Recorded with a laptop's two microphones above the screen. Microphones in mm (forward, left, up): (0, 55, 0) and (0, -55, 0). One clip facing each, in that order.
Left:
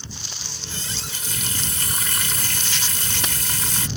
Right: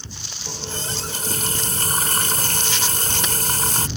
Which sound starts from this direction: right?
A running tap, at 0.5 s.